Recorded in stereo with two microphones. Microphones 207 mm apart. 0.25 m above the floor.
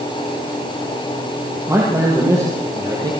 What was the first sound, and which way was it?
A man speaking, 15° right (ahead or behind).